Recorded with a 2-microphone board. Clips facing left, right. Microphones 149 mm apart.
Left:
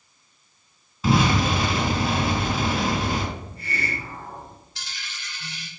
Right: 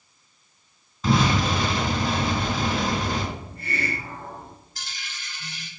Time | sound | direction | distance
1.0 | an explosion | 5° left (ahead or behind) | 3.5 m
3.4 | a hiss | 50° right (ahead or behind) | 2.5 m
4.8 | a dropped coin | 45° right (ahead or behind) | 3 m